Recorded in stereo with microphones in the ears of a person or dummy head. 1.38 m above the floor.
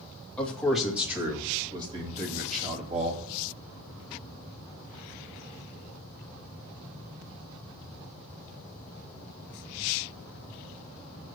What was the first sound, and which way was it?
A man speaking, 10° left (ahead or behind).